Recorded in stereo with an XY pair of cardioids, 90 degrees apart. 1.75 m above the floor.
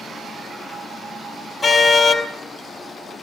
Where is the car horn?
45° left, 4 m.